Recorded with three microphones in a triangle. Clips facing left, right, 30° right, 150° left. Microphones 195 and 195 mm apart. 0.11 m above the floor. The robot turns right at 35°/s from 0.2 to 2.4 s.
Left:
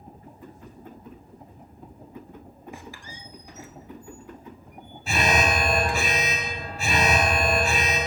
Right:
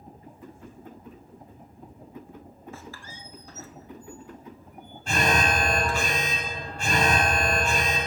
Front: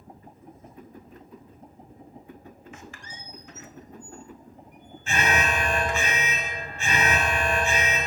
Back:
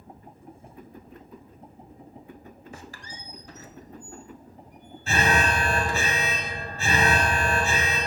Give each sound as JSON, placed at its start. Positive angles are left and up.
{"t": 2.7, "sound": "a squeak", "azimuth_deg": 155, "distance_m": 0.6}
{"t": 5.1, "sound": "an alarm", "azimuth_deg": 170, "distance_m": 1.0}